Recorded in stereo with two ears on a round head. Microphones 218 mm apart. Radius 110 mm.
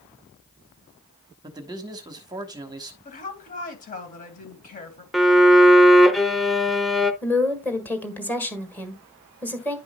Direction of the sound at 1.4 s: 15° right (ahead or behind).